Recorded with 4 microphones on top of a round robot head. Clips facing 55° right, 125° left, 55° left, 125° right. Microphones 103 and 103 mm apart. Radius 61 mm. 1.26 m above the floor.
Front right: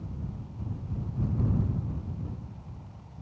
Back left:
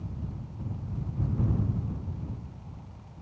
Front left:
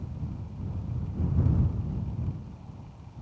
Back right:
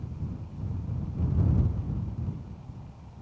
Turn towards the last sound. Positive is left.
No sound to turn to.